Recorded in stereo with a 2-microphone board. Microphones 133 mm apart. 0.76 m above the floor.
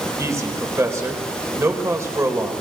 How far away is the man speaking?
About 3.5 m.